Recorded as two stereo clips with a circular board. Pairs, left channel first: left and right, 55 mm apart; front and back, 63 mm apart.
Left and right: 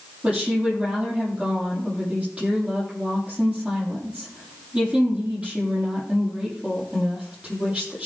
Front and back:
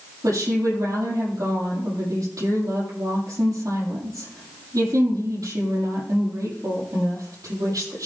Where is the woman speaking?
160° right, 7 m.